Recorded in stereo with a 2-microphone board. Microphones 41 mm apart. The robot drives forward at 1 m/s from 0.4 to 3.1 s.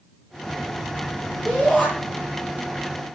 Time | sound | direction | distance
1.4 | a shout | centre (ahead or behind) | 7.5 m